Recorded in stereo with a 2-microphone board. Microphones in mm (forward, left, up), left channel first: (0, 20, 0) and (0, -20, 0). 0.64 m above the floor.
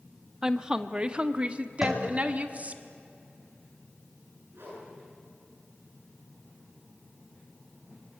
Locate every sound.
0.4 s a woman speaking: 15° right (ahead or behind), 0.8 m; by 2.8 s 35° right (ahead or behind), 1.7 m
1.8 s tapping: 5° right (ahead or behind), 4 m
4.5 s a whoosh: 65° right (ahead or behind), 9 m